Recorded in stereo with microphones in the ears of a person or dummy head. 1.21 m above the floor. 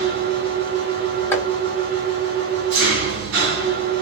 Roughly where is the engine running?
Right.